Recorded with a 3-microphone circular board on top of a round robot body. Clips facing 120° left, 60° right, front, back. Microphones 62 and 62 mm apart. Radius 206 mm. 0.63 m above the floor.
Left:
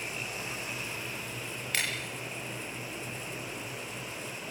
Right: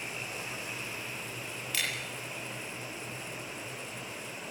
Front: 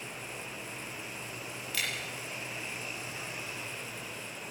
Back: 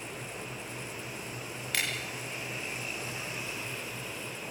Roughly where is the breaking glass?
Behind left.